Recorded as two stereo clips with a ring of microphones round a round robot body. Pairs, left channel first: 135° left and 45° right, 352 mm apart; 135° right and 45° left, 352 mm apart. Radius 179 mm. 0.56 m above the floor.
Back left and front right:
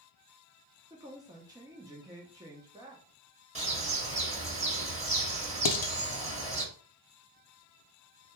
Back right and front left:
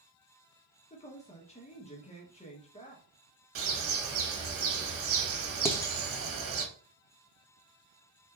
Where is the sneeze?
No sneeze in this recording.